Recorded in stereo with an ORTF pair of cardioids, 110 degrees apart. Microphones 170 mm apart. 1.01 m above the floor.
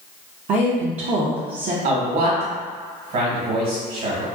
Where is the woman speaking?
45° right, 0.6 m.